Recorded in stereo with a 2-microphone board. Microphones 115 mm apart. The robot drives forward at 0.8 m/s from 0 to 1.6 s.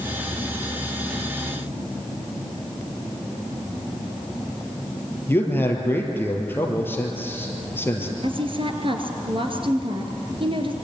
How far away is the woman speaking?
About 2 m.